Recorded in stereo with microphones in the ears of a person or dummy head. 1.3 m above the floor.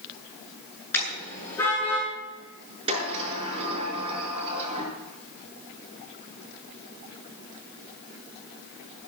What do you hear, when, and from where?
0.9 s a car horn: 10° left (ahead or behind), 9.5 m; by 2.1 s 15° left (ahead or behind), 8 m
2.9 s a sliding door: 30° right (ahead or behind), 6.5 m